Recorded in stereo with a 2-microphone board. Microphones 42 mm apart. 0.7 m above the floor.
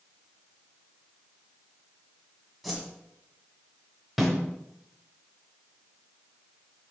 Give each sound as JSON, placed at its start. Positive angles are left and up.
{"t": 2.6, "sound": "a whoosh", "side_deg": 0, "distance_m": 1.9}
{"t": 4.2, "sound": "a snare drum", "side_deg": 0, "distance_m": 3.0}